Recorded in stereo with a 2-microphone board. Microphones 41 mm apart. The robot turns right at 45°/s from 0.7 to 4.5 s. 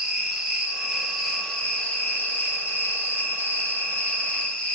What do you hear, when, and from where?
0.0 s an insect: 20° right, 0.8 m; by 4.8 s 155° left, 0.8 m